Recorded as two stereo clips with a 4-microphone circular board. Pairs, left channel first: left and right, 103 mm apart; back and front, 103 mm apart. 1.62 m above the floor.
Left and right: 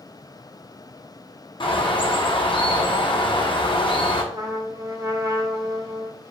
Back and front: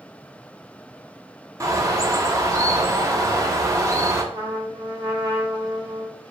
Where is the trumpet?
40° right, 1.1 m.